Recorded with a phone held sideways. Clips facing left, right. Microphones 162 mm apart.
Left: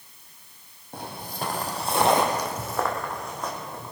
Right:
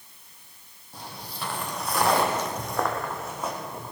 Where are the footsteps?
60° left (ahead or behind), 1.8 m; by 3.9 s 10° right (ahead or behind), 3.5 m.